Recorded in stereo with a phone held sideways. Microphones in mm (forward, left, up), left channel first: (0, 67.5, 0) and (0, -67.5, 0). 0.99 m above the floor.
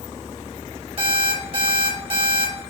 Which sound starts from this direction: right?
An alarm clock, at 1.0 s.